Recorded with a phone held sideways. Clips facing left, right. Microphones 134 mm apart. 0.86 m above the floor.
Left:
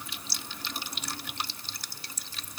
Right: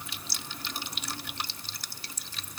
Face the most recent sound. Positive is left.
No sound to turn to.